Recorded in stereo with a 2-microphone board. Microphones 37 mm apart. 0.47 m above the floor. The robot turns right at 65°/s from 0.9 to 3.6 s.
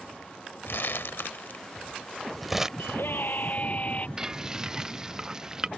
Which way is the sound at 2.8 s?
85° left.